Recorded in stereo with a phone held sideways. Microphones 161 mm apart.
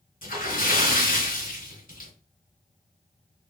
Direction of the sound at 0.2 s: 60° left (ahead or behind).